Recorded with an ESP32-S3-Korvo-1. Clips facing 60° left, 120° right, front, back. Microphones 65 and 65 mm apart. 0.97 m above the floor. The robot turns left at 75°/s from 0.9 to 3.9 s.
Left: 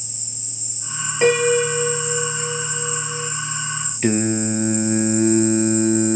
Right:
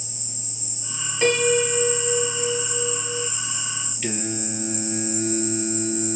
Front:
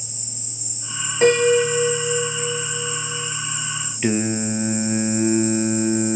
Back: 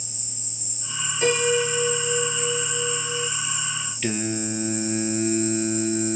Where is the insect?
60° right, 1.8 m; by 6.2 s 75° left, 1.8 m.